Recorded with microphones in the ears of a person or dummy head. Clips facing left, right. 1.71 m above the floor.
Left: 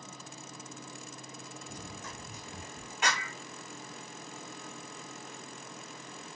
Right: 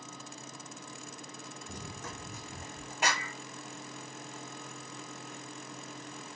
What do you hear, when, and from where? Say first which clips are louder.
1.7 s running footsteps: right 3 dB; 60° right (ahead or behind), 4 m
3.0 s a clap: right 1 dB; 40° right (ahead or behind), 3 m